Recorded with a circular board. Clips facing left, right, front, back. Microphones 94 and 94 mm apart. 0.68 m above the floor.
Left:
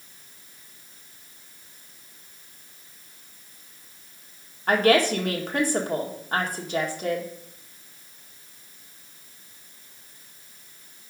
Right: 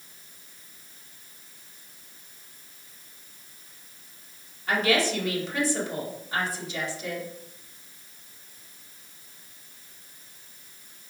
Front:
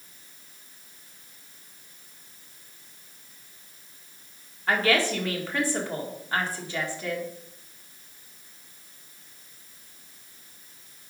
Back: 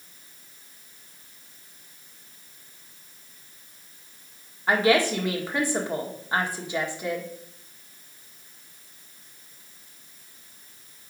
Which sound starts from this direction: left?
A woman speaking, at 4.7 s.